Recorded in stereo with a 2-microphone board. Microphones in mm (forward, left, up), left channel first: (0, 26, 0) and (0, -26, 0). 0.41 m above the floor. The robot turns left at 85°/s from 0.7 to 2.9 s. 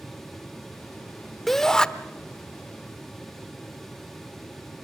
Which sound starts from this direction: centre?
A shout, at 1.5 s.